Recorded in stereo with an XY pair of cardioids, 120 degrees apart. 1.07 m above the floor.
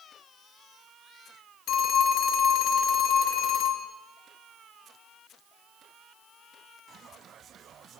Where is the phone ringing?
70° left, 0.9 m.